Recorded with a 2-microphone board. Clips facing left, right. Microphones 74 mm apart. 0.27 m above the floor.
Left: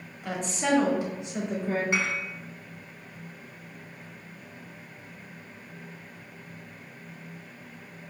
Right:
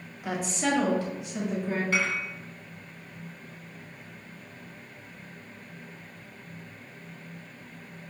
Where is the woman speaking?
10° right (ahead or behind), 1.0 m; by 1.8 s 40° left (ahead or behind), 1.2 m.